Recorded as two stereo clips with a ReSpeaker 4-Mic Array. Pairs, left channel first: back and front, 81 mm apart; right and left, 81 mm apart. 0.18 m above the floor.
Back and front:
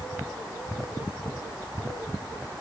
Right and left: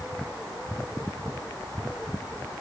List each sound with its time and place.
Only background noise.